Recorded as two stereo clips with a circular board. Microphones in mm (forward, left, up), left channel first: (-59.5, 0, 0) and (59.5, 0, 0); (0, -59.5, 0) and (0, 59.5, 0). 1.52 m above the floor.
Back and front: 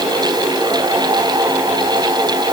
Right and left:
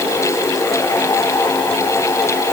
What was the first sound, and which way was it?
Only background noise.